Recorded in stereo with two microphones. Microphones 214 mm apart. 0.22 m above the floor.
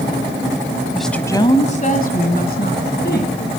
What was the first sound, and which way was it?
A woman speaking, 5° right (ahead or behind).